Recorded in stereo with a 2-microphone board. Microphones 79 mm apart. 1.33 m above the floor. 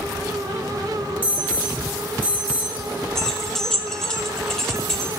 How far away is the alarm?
About 2.5 m.